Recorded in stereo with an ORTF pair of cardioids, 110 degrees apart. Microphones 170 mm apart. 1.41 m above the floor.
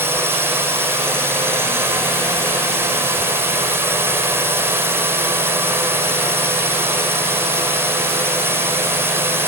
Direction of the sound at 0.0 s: 15° right.